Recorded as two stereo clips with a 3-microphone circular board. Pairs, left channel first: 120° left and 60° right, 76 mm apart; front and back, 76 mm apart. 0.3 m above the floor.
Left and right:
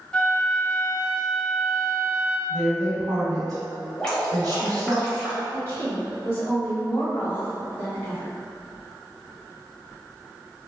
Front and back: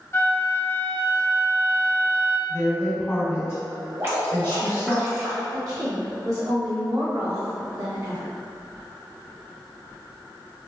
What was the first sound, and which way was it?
A flute, 45° left.